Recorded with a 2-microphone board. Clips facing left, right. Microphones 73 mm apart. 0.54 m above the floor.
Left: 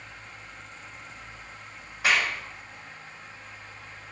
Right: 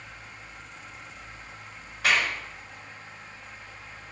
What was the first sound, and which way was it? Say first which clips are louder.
A clap: even; 10° left (ahead or behind).